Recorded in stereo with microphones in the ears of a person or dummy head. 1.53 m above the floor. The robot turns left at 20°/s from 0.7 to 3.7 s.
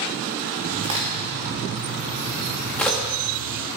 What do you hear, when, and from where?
0.8 s a crack: 35° right (ahead or behind), 2 m; by 3.0 s 10° left (ahead or behind), 2 m